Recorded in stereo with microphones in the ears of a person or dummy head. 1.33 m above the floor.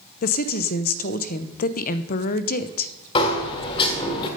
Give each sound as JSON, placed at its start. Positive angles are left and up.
{"t": 0.2, "sound": "a woman speaking", "side_deg": 50, "distance_m": 0.7}
{"t": 3.1, "sound": "a sliding door", "side_deg": 30, "distance_m": 1.9}